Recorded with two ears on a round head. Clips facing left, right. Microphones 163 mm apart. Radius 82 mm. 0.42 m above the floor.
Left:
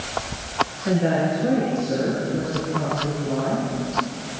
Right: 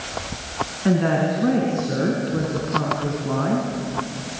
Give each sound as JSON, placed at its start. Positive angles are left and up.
{"t": 0.8, "sound": "a woman speaking", "side_deg": -75, "distance_m": 5.0}